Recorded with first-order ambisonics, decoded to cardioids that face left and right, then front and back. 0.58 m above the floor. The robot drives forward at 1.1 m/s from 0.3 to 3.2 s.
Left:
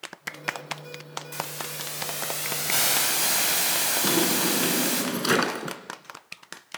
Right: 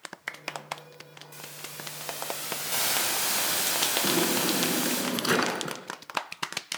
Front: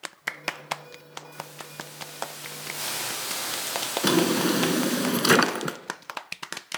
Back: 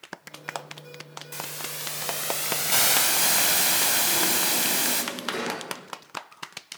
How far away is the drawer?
About 2 m.